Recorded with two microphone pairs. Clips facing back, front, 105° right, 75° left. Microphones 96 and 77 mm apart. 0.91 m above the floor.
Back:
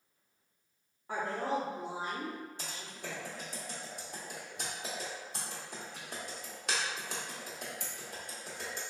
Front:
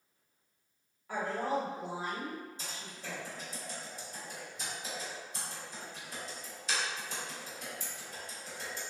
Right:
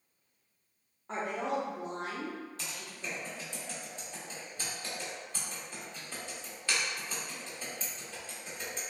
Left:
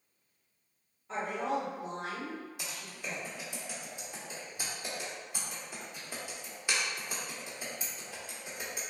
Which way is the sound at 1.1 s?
125° right.